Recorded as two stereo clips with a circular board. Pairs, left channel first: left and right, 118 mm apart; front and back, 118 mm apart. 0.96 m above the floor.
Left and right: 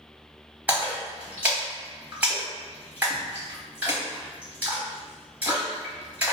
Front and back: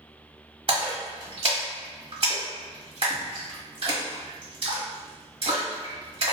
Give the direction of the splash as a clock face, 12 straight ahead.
5 o'clock.